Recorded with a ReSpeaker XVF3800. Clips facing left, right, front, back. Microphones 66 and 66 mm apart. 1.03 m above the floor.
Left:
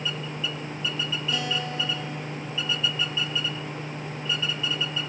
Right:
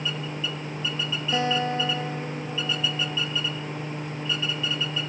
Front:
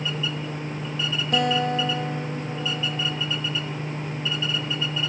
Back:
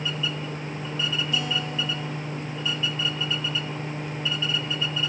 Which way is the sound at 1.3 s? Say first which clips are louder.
Right 8 dB, front 6 dB; 35° right.